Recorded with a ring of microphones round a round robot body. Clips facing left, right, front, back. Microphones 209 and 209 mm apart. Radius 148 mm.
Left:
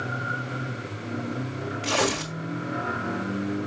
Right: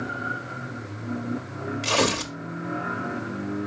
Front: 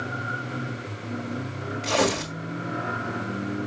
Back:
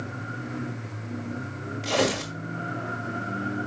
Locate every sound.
1.8 s tearing paper: 95° right, 1.5 m